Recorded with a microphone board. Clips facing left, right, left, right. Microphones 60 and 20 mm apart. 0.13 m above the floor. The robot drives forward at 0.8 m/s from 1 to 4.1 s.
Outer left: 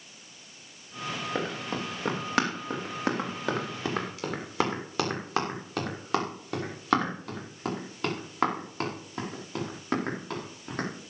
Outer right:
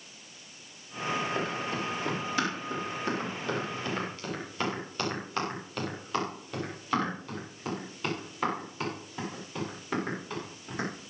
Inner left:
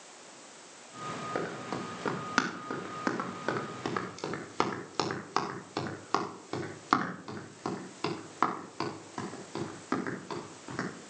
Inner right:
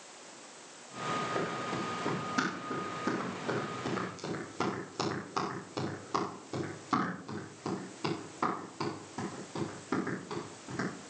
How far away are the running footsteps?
About 6 m.